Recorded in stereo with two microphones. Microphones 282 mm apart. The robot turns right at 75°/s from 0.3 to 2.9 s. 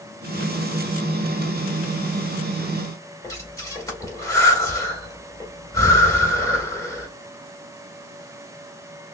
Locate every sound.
3.2 s breathing: 10° left (ahead or behind), 2.0 m